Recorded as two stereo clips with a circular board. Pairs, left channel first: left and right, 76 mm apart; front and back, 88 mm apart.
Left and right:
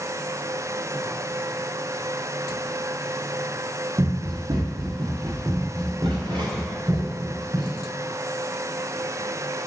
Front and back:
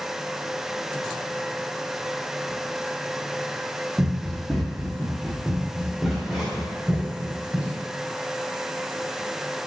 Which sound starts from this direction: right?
Running footsteps, at 4.0 s.